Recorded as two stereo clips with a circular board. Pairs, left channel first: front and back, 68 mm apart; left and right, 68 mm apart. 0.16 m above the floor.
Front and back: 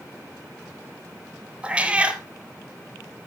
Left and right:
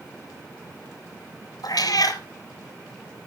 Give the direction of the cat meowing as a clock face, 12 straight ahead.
8 o'clock.